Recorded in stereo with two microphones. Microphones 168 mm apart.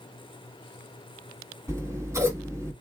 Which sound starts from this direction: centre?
Scissors, at 1.7 s.